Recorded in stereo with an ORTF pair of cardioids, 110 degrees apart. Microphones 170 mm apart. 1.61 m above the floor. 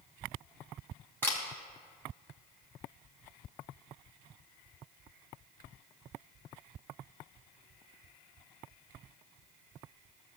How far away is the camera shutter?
About 2 m.